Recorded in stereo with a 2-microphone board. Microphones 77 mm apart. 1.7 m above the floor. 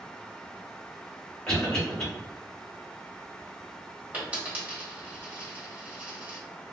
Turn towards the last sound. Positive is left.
turn(degrees=-20)  # may be behind; listen again after turning